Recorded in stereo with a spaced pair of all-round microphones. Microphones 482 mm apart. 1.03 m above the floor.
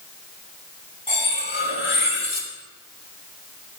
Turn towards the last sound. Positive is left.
turn(degrees=75)  # may be behind; listen again after turning